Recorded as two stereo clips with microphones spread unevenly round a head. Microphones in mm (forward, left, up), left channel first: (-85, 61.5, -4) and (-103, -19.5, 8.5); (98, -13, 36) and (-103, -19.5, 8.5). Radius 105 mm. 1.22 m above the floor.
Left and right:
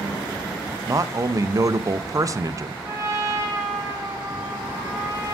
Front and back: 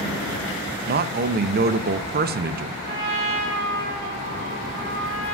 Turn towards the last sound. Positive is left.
turn(degrees=-150)